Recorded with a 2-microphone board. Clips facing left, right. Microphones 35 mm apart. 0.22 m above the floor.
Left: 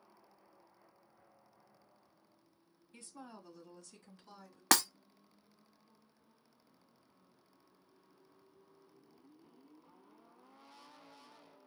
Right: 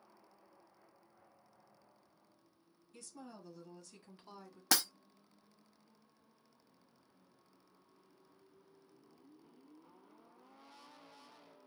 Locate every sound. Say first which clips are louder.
2.9 s a woman speaking: even; 30° left (ahead or behind), 1.2 m; by 4.6 s 30° right (ahead or behind), 1.5 m
4.7 s breaking glass: left 4 dB; 65° left (ahead or behind), 0.8 m